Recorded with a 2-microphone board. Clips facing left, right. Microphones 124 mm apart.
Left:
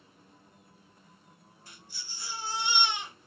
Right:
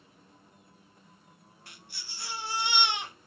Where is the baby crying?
75° right (ahead or behind), 1.8 m.